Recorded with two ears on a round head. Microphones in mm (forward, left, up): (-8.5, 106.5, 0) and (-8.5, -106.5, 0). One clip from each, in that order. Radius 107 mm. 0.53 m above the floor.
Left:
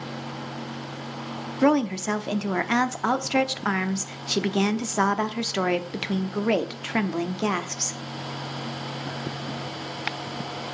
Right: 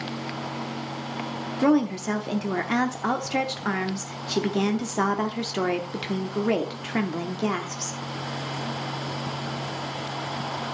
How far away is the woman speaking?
About 0.8 m.